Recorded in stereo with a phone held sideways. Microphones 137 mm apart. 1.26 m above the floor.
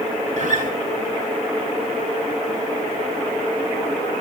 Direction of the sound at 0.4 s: 60° right (ahead or behind).